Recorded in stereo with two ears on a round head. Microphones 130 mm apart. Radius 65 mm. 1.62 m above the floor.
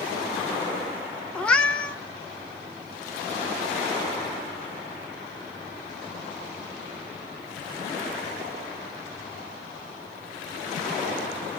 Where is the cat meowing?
10° left (ahead or behind), 0.9 m.